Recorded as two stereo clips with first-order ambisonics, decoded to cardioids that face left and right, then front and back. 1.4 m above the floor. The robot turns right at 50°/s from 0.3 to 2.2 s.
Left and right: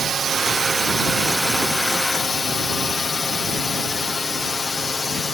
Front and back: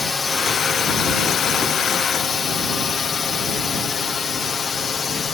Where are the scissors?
No scissors in this recording.